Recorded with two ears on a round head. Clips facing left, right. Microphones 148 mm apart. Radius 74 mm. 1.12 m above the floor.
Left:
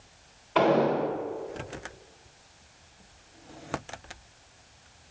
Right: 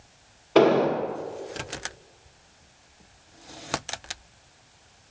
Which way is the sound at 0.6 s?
45° right (ahead or behind).